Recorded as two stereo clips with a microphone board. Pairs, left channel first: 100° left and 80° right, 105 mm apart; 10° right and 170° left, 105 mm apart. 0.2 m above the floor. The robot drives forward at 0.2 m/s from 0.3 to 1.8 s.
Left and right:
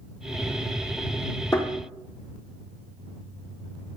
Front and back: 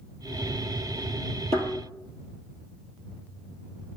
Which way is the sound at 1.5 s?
Straight behind.